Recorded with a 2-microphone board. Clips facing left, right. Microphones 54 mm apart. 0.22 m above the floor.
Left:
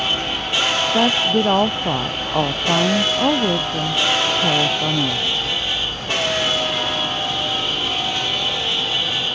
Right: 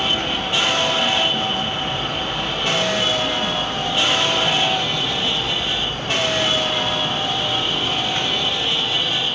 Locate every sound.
0.9 s a woman speaking: 75° left (ahead or behind)